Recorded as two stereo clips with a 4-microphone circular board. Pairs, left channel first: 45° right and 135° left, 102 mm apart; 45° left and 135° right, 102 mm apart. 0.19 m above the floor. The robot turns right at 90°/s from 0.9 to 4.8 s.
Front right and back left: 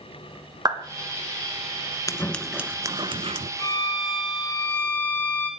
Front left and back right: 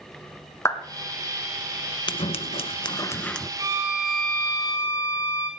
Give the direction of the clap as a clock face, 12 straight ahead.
9 o'clock.